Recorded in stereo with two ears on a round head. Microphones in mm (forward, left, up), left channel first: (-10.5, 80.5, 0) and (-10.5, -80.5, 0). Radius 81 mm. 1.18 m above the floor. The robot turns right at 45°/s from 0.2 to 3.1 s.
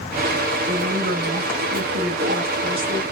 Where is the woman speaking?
130° right, 0.6 m; by 3.0 s 25° right, 0.6 m.